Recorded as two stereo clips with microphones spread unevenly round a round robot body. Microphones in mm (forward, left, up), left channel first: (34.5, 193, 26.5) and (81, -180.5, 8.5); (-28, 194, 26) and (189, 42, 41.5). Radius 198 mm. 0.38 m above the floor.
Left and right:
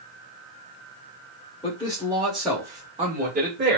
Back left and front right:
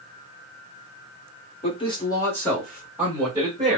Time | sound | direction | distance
1.6 | a man speaking | 160° left | 1.4 m